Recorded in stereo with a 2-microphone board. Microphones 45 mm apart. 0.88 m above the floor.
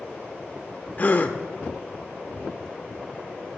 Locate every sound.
1.0 s a gasp: 35° left (ahead or behind), 0.9 m